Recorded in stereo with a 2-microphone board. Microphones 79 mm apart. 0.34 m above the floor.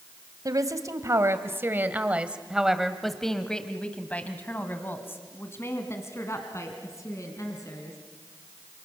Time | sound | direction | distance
0.5 | a woman speaking | 50° right (ahead or behind) | 2 m